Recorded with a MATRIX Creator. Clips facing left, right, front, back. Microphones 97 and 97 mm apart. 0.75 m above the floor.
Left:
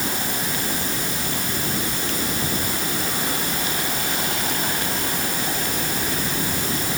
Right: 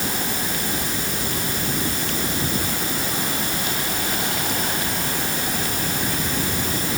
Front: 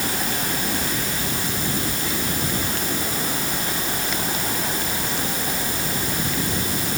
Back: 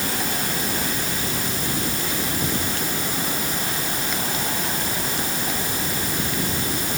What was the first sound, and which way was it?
Only background noise.